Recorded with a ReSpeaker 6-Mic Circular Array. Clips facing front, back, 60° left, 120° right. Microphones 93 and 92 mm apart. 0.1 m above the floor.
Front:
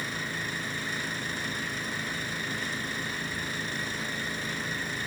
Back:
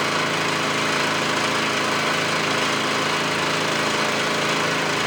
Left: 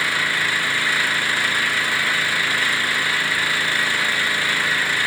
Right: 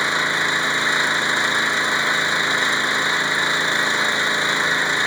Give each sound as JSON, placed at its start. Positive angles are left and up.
{"t": 0.0, "sound": "an engine running", "azimuth_deg": 170}